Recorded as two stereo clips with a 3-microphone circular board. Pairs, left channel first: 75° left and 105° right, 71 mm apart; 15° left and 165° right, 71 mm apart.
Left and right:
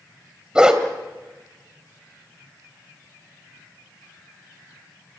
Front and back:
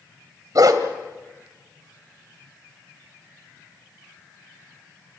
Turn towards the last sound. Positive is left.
turn(degrees=175)